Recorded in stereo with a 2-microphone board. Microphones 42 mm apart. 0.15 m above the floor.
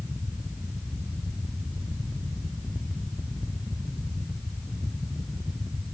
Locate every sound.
Only background noise.